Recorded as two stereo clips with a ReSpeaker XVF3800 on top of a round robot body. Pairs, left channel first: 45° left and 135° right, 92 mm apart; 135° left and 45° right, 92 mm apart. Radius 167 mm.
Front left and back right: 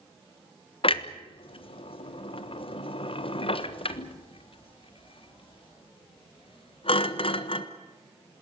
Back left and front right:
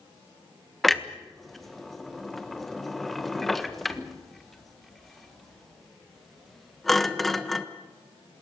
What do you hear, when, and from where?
0.8 s a clunk: 45° left, 1.5 m